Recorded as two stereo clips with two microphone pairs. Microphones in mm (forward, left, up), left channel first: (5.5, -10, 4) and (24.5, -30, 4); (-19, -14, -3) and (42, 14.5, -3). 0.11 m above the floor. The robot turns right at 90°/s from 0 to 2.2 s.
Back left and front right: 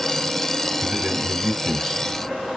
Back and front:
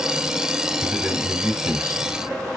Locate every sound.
0.8 s a man speaking: 45° right, 3 m; by 2.1 s 75° left, 3 m